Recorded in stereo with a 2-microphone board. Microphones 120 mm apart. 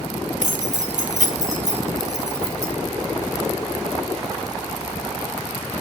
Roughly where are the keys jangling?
Right.